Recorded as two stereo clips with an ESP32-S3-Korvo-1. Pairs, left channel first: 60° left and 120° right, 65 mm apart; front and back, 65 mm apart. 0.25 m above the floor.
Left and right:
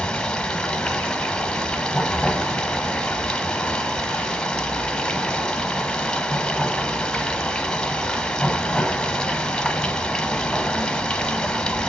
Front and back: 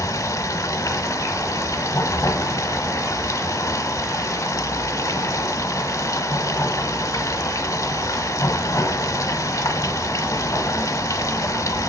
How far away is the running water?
About 0.9 m.